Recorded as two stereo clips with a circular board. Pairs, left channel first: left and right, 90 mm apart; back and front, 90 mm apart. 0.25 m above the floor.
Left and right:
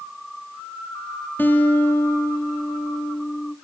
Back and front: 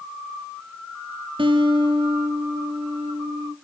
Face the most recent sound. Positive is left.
turn(degrees=20)